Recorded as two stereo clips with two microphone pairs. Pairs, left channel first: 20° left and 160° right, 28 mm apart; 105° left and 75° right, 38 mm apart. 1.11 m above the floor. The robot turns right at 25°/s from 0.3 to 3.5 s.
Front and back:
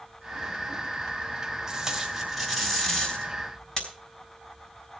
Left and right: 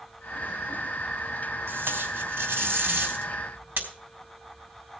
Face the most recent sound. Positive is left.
turn(degrees=-40)